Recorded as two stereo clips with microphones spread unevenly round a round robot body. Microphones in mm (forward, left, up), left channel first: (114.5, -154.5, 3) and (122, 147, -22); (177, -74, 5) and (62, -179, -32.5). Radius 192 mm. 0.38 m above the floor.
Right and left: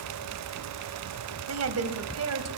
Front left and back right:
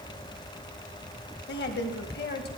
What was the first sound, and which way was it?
A woman speaking, 70° left.